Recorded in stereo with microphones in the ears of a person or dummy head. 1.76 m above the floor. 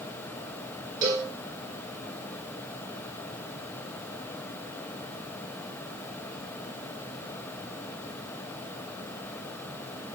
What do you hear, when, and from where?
1.0 s a cowbell: 30° right (ahead or behind), 2 m